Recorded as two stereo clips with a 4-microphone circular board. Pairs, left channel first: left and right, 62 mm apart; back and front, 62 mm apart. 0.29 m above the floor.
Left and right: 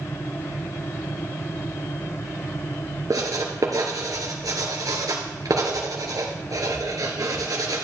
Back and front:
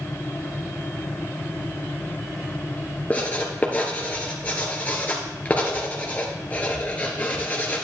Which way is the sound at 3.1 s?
115° right.